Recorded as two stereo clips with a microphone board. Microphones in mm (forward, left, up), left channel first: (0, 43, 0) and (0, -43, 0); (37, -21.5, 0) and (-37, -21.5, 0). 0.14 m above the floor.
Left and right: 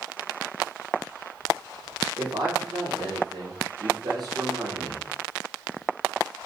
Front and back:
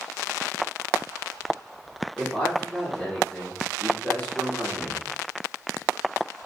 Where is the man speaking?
85° right, 4 m.